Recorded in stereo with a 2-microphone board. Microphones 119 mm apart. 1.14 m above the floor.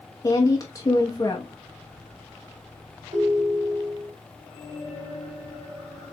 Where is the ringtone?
80° right, 3.5 m.